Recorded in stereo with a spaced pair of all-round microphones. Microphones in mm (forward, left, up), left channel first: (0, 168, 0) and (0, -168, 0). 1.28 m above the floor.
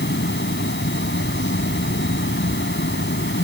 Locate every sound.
0.0 s a fan: 35° left (ahead or behind)